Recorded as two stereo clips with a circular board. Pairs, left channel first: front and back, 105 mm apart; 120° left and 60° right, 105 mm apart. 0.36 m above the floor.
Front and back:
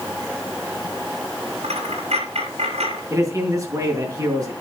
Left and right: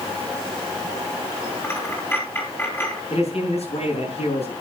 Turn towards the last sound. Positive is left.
turn(degrees=125)